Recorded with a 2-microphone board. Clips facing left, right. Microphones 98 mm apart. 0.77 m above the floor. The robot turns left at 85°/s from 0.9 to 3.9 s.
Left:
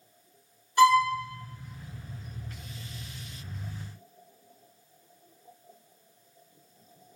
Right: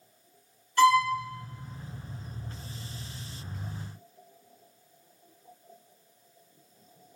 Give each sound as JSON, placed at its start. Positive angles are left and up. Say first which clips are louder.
{"t": 0.8, "sound": "a violin", "louder": "left 1 dB", "side_deg": 15, "distance_m": 0.8}